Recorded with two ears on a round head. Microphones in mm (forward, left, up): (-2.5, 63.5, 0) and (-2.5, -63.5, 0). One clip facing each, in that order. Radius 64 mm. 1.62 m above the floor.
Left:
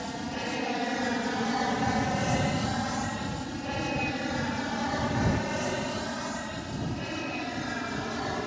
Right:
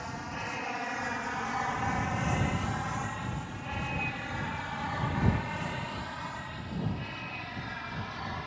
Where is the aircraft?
35° left (ahead or behind); by 8.5 s 55° left (ahead or behind).